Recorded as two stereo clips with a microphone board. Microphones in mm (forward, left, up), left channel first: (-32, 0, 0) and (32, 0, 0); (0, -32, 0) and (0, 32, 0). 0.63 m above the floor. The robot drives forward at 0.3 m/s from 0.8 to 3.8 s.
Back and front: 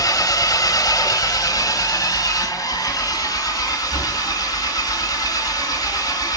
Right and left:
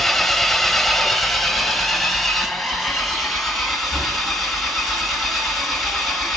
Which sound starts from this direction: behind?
An engine running, at 0.0 s.